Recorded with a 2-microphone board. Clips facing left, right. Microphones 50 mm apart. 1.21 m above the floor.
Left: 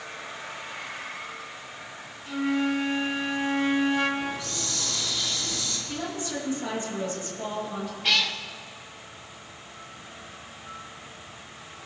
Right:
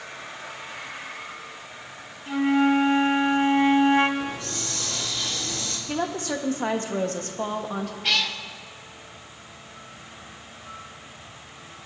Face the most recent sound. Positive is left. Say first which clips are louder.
# left 1 dB
turn(degrees=0)  # may be behind; listen again after turning